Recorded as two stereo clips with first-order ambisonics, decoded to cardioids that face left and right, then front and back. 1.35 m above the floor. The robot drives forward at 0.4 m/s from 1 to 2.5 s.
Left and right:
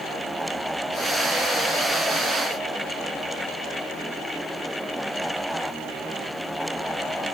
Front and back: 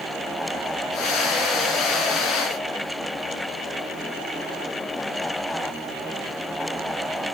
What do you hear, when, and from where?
Only background noise.